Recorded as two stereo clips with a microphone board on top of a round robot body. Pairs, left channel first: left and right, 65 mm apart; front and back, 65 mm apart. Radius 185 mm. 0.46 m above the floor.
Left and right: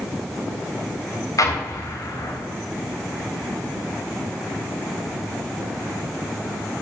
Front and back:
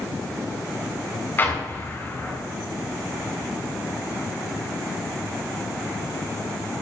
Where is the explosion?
60° left, 3.5 m.